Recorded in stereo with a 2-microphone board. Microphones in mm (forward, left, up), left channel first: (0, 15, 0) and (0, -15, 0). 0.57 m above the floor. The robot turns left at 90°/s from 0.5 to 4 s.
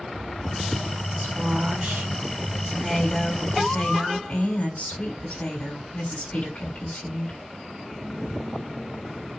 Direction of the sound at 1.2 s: 45° right.